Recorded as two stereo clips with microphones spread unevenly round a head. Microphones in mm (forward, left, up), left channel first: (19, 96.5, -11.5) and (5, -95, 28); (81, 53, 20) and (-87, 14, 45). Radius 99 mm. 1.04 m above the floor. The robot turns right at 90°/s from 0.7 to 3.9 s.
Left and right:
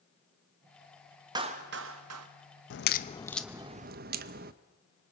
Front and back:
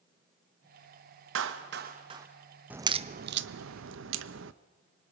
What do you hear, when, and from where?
1.4 s a clap: 170° right, 1.3 m; by 2.3 s 85° right, 1.3 m
2.7 s a crack: 110° left, 0.7 m; by 4.5 s 140° right, 0.7 m